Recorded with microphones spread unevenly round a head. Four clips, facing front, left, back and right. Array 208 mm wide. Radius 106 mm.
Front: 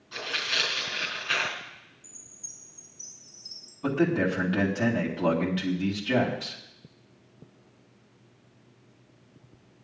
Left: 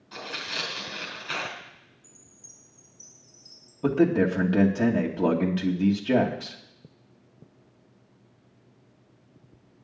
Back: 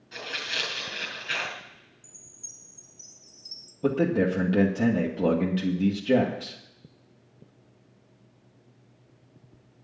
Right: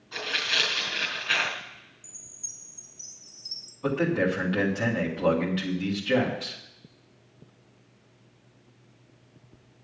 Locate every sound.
0.1 s tearing paper: 115° left, 4.5 m
2.0 s a chime: 135° right, 3 m
3.8 s a man speaking: 140° left, 2 m